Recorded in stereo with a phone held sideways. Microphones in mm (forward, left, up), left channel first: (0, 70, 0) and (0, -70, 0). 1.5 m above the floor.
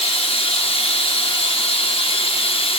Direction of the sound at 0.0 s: 40° left (ahead or behind).